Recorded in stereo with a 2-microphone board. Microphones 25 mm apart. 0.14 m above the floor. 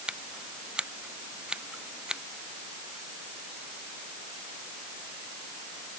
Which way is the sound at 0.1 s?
40° right (ahead or behind).